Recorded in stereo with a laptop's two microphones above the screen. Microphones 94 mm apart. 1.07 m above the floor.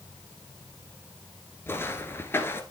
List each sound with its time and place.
1.7 s footsteps: 25° left (ahead or behind), 1.1 m